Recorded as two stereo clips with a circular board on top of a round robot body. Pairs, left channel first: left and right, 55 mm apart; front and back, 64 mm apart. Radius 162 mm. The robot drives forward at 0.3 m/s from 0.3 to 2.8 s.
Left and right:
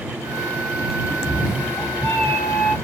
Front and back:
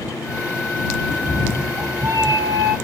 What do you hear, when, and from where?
1.1 s a cat meowing: 140° left, 1.1 m; by 2.8 s 155° left, 1.5 m